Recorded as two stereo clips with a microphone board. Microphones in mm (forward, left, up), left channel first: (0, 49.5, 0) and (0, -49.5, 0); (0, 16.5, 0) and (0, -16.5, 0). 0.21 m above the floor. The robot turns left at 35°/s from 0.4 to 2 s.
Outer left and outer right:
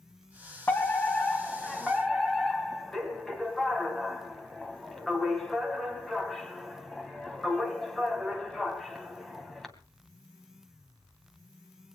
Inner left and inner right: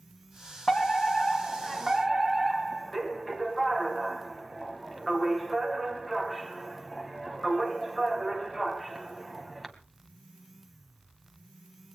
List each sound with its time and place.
0.7 s a fire alarm: 25° left (ahead or behind), 2 m; by 9.7 s 5° left (ahead or behind), 2 m